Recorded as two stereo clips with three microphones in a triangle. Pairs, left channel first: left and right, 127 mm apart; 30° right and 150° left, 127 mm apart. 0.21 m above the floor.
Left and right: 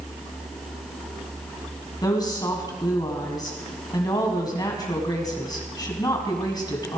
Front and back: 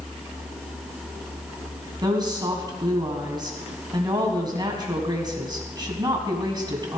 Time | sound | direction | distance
2.0 | a woman speaking | 125° left | 1.7 m